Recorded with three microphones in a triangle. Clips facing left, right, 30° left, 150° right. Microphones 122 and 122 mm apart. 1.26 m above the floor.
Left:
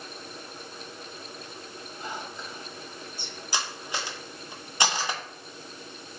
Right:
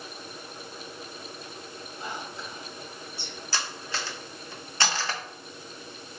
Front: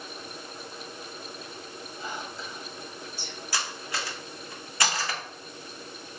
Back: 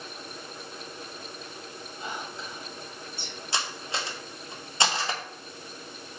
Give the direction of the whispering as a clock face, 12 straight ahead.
4 o'clock.